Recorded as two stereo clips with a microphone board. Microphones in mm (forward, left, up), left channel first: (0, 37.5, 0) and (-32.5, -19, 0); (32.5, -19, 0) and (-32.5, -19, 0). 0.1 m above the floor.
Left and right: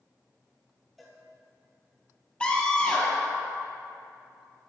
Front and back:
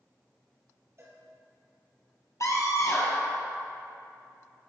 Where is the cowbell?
150° left, 2 m.